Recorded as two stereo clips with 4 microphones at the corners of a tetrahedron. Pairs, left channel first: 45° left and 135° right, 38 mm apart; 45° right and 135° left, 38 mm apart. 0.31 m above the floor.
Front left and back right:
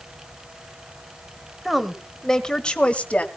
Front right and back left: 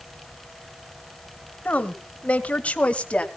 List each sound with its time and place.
1.6 s a woman speaking: 50° right, 1.3 m; by 3.3 s 5° left, 1.6 m